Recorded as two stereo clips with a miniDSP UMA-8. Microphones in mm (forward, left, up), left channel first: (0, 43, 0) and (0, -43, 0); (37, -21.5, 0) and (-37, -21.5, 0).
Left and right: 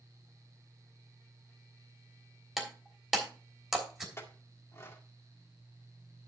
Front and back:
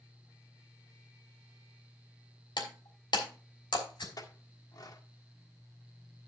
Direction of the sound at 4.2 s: 30° left.